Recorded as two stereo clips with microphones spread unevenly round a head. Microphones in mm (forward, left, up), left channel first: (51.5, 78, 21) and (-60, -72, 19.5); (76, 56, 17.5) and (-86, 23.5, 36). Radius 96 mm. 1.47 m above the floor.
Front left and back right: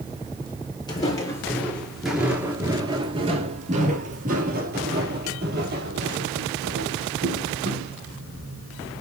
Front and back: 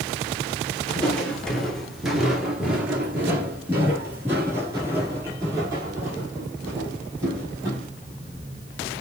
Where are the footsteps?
105° left, 1.6 m; by 7.9 s 95° right, 3.5 m.